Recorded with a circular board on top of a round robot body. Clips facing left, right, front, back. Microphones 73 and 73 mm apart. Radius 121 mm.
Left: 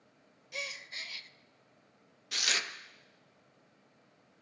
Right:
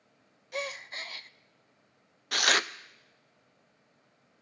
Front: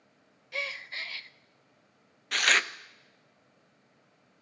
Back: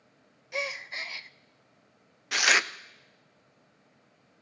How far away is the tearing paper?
About 0.6 m.